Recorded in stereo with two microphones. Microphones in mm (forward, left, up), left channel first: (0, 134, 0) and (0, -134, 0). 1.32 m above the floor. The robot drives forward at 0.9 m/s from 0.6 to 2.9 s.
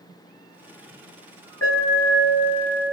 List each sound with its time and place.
1.6 s an alarm: 60° left (ahead or behind), 7.5 m; by 2.9 s 65° left (ahead or behind), 7 m